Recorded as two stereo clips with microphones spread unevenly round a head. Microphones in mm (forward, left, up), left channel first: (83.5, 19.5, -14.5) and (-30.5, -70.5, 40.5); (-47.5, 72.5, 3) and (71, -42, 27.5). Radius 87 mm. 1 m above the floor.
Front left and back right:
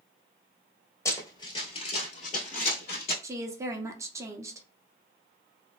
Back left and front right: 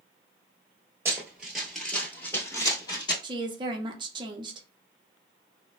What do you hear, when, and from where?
1.1 s running footsteps: 55° right, 1.0 m; by 3.1 s 70° left, 1.3 m
3.2 s a woman speaking: 50° right, 0.6 m